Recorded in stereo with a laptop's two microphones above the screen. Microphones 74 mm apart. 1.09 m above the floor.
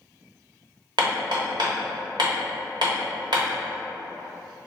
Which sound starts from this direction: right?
Hammering, at 1.0 s.